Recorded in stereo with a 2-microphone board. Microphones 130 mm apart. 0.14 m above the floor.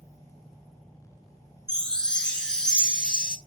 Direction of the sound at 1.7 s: 5° left (ahead or behind).